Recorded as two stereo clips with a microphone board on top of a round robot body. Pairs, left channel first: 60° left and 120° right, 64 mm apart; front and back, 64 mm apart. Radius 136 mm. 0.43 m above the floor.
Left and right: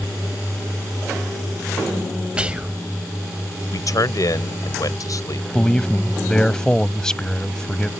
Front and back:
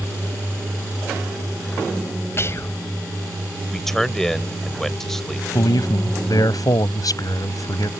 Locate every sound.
2.4 s whispering: 45° right
3.7 s a man speaking: 85° left
5.5 s a man speaking: 20° right